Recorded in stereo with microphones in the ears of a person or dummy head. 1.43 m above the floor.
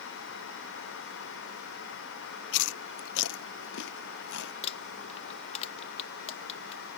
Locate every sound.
2.5 s chewing: 70° left (ahead or behind)
4.6 s crumpling: 35° left (ahead or behind)